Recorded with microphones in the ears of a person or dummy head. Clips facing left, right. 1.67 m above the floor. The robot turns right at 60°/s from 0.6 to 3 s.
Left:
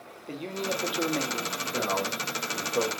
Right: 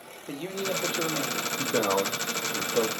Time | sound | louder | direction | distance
0.3 | a man speaking | right 1 dB | 10° right | 1.0 m
1.6 | a man speaking | right 6 dB | 80° right | 0.8 m